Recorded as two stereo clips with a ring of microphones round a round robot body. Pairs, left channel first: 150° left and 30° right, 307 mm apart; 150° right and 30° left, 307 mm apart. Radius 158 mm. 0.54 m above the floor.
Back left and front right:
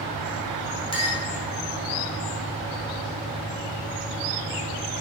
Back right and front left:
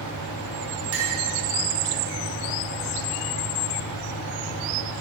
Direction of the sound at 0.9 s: 75° left.